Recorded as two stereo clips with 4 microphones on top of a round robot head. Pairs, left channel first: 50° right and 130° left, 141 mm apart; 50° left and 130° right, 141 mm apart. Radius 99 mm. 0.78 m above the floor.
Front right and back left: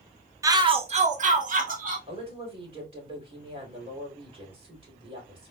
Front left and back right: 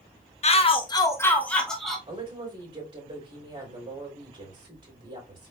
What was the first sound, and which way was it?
A shout, 65° left.